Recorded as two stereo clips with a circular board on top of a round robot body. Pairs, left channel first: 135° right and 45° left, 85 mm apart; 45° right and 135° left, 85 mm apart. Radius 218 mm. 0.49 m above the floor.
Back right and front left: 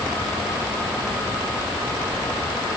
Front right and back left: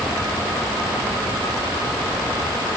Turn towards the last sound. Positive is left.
No sound to turn to.